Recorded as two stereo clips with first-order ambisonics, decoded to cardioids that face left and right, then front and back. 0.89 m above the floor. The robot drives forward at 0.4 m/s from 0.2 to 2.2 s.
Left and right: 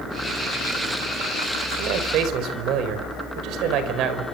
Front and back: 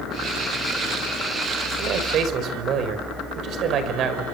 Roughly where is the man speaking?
Behind right.